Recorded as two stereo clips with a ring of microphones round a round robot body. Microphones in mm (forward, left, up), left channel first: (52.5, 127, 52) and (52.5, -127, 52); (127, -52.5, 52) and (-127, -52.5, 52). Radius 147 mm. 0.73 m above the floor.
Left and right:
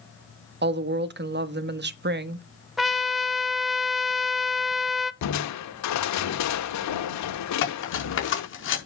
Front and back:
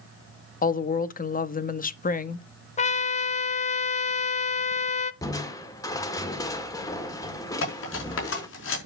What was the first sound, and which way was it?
A woman speaking, 50° right.